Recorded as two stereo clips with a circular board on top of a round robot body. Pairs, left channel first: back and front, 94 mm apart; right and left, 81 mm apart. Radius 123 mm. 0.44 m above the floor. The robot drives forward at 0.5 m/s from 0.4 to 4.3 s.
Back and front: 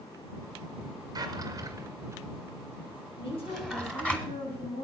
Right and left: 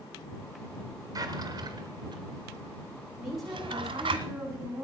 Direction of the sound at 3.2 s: 175° left.